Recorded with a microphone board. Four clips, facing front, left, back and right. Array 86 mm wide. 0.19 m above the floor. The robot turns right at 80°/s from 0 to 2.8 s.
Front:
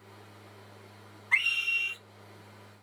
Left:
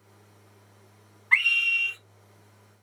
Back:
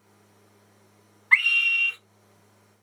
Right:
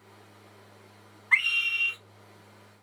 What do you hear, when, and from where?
1.3 s a scream: 165° left, 1.2 m; by 2.0 s 140° right, 1.2 m